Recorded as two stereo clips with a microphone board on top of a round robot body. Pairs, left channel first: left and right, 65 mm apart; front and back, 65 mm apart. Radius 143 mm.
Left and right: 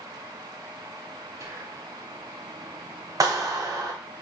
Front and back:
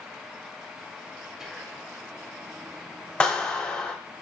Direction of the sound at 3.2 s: 75° right.